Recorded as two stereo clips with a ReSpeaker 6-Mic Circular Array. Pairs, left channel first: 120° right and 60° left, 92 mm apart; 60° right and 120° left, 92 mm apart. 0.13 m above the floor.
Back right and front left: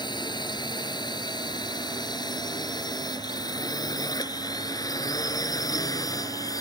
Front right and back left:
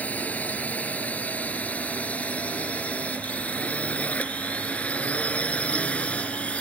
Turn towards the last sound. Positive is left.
turn(degrees=-130)